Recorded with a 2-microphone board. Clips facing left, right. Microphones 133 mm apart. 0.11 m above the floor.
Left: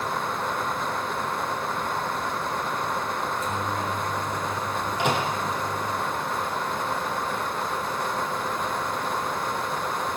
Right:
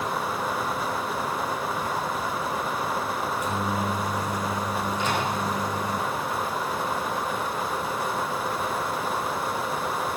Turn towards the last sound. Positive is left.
turn(degrees=70)  # may be behind; listen again after turning